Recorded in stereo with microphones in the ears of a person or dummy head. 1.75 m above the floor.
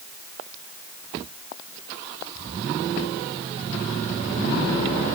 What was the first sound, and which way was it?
Only background noise.